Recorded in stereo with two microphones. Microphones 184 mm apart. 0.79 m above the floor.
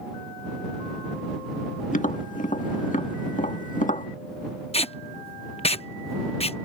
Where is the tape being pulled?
35° left (ahead or behind).